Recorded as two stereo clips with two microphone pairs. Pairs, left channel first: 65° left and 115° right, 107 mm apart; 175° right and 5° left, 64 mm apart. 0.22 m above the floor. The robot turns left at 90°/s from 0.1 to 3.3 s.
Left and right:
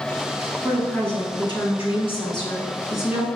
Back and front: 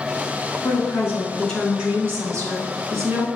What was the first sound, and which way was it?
A woman speaking, 175° right.